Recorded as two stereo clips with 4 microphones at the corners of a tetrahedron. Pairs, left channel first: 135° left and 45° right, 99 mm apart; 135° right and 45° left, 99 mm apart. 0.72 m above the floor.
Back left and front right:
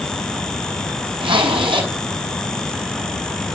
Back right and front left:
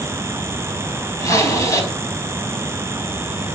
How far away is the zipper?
About 4 m.